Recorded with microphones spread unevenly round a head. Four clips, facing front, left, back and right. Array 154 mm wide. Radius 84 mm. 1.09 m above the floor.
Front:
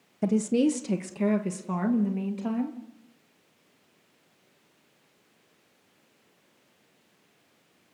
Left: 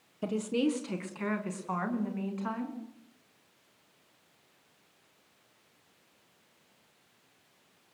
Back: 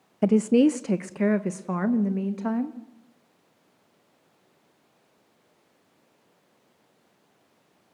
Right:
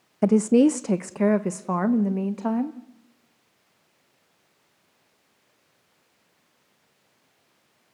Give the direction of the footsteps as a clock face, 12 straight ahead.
No footsteps in this recording.